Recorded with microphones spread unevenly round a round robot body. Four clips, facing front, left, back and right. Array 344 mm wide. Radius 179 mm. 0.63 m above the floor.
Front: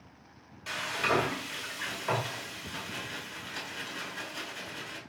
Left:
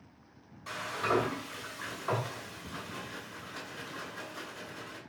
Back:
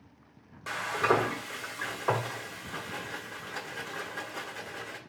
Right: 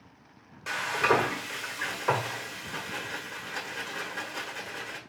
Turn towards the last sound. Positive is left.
turn(degrees=-145)